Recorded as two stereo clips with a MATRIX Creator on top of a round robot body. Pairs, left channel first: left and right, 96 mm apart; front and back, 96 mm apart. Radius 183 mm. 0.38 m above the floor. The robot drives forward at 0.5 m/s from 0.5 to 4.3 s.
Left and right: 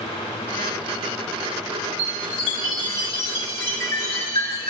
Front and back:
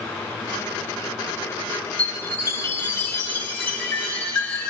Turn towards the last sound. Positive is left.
turn(degrees=75)